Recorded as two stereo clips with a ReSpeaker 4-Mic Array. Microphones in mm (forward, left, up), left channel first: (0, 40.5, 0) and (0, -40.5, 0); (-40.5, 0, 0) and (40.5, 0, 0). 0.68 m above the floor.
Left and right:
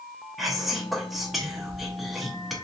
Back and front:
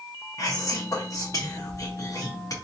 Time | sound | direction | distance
0.4 | whispering | straight behind | 0.9 m